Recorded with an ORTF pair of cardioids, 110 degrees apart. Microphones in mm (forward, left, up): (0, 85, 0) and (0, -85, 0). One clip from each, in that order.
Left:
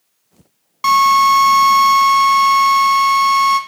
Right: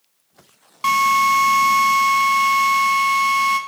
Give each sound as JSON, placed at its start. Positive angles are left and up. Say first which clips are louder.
{"t": 0.8, "sound": "a drill", "louder": "left 5 dB", "azimuth_deg": 5, "distance_m": 1.4}